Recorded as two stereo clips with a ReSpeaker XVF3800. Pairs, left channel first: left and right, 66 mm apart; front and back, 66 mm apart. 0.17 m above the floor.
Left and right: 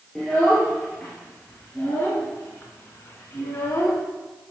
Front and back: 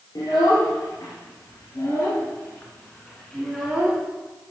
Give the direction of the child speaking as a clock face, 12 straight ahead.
12 o'clock.